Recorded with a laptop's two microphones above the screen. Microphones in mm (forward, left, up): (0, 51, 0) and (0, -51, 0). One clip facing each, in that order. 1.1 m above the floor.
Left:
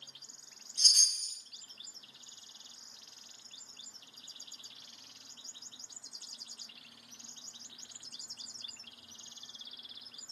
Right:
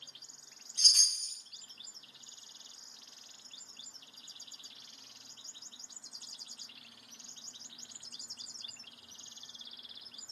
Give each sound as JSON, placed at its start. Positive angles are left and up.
{"t": 0.8, "sound": "a chime", "side_deg": -50, "distance_m": 1.2}